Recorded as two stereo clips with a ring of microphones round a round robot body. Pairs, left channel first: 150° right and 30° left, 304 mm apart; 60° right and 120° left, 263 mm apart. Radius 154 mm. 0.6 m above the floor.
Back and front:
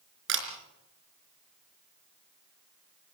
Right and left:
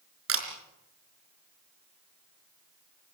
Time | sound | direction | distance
0.3 | a camera shutter | 85° left | 4 m